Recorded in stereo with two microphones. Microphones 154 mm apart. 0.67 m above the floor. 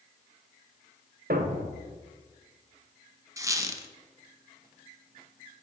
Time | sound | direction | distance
1.3 | a thud | 75° right (ahead or behind) | 0.8 m
3.4 | a squeak | 20° right (ahead or behind) | 0.8 m